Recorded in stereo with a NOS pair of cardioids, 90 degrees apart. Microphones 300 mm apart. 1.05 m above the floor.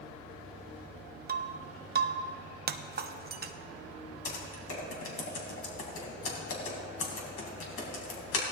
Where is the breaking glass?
35° right, 0.8 m.